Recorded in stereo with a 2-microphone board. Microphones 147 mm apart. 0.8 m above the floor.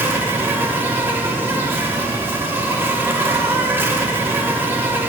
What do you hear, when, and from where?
0.0 s an insect: 15° right (ahead or behind), 1.2 m